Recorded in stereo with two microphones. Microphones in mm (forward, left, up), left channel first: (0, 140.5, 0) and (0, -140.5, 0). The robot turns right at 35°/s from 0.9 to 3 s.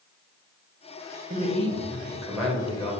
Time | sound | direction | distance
1.3 | a man speaking | 35° right | 1.1 m